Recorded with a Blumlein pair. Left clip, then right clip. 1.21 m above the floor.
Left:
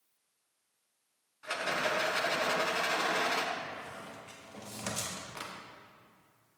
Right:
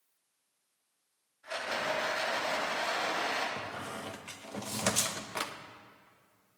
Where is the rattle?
55° left, 6 m.